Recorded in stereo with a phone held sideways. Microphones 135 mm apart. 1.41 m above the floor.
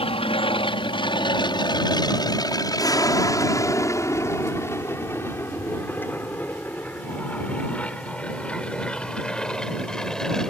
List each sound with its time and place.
0.0 s an aircraft: 45° left (ahead or behind); by 10.5 s 5° left (ahead or behind)